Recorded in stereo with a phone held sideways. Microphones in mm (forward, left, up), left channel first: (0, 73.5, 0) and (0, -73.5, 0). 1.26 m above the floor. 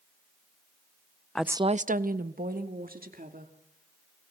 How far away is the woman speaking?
About 0.5 m.